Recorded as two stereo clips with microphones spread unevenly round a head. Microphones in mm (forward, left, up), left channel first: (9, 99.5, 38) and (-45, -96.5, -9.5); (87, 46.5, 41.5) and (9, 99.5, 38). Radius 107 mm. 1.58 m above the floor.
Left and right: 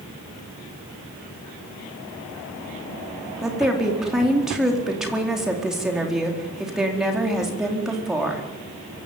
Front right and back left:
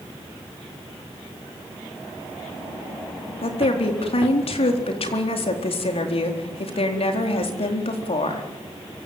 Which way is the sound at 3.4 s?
20° right.